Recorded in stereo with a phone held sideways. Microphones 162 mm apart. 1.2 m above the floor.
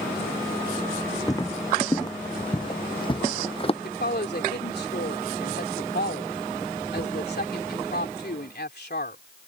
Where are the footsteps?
20° left (ahead or behind); by 3.7 s 35° left (ahead or behind).